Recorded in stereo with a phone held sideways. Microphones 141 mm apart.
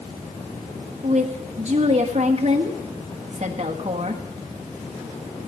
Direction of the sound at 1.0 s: 50° right (ahead or behind).